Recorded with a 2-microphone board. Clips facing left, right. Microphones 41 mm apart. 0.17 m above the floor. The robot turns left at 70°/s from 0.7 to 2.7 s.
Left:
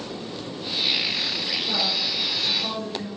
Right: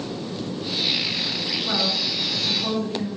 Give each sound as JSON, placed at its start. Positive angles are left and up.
{"t": 1.6, "sound": "a woman speaking", "azimuth_deg": -115, "distance_m": 2.5}